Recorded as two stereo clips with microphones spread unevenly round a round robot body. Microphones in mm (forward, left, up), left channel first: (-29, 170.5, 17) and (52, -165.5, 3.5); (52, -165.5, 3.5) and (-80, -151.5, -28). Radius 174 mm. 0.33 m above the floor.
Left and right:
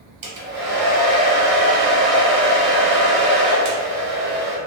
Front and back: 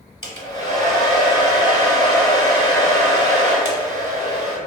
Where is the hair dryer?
75° right, 1.4 m.